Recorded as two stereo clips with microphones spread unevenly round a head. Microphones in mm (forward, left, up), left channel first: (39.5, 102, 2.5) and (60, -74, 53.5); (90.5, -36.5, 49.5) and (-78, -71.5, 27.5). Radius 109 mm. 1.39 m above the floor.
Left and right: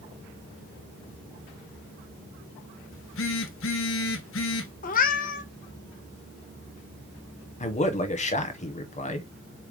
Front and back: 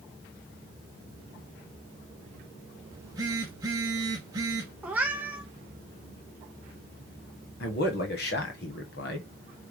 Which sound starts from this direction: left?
A cat meowing, at 4.8 s.